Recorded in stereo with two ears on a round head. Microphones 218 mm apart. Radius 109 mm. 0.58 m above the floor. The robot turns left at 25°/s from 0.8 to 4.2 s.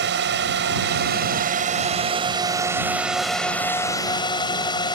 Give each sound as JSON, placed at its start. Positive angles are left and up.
{"t": 0.0, "sound": "a drone", "side_deg": -50}